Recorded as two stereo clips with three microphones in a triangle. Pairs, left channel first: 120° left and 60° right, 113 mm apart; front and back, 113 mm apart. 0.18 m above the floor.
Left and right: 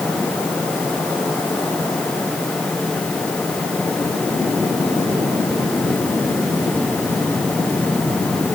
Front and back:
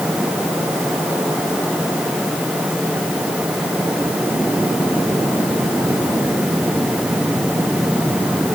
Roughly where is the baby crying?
No baby crying in this recording.